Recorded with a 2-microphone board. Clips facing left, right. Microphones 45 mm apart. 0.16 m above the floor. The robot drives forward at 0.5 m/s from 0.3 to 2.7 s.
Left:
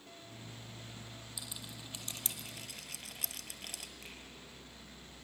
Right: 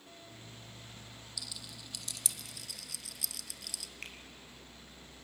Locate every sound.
1.4 s a rattle: 25° left (ahead or behind), 1.4 m; by 3.9 s 45° left (ahead or behind), 0.8 m
4.0 s a finger snap: 65° right (ahead or behind), 3.5 m